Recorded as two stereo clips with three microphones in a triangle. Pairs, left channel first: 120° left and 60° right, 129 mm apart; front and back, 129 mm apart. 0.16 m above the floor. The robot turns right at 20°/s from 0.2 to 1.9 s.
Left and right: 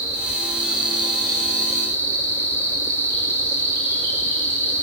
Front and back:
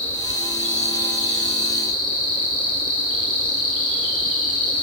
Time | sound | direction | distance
0.0 | an insect | 10° left | 4.5 m